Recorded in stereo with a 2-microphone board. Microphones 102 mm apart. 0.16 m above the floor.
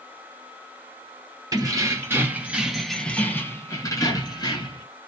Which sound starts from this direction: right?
Keys jangling, at 1.5 s.